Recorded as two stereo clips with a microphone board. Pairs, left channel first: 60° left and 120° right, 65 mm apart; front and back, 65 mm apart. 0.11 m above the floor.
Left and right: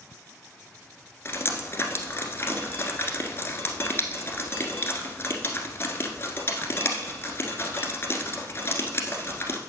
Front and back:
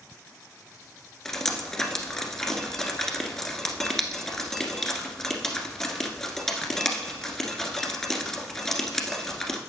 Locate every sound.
1.2 s dripping: 80° left, 1.3 m